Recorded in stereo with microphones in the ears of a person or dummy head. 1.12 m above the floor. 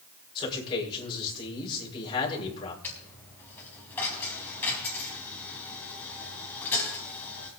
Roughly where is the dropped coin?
Centre.